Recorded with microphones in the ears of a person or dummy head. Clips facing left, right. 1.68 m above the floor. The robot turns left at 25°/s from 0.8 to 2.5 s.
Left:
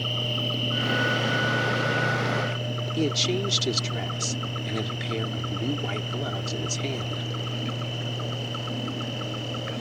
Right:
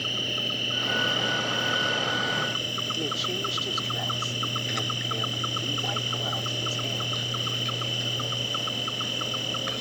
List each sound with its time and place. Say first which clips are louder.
0.0 s an insect: left 3 dB; 15° right; by 9.8 s 60° right
3.0 s a woman speaking: left 8 dB; 45° left (ahead or behind)